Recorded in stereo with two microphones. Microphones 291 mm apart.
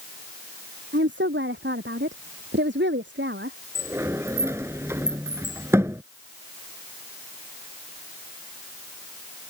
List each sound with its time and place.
0.9 s a woman speaking: 40° right (ahead or behind)
3.8 s a sliding door: 10° right (ahead or behind)